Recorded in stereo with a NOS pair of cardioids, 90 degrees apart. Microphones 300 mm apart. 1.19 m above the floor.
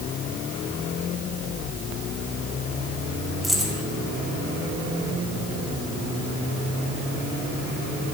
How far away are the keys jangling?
About 5.5 m.